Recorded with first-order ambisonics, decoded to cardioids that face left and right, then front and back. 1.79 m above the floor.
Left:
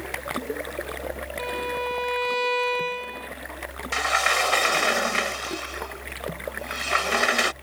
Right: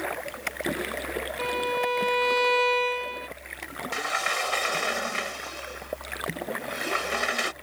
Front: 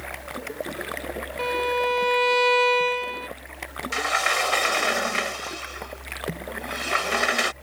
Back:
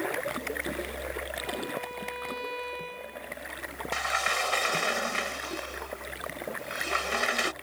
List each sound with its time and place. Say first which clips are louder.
1.4 s a violin: right 2 dB, front 11 dB; 10° right
3.9 s a sliding door: left 6 dB, front 5 dB; 45° left